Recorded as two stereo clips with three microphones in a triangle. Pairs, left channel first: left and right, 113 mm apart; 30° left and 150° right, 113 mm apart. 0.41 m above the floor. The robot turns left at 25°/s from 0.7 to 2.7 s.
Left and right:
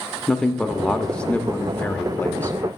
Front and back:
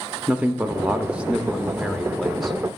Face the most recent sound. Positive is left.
turn(degrees=115)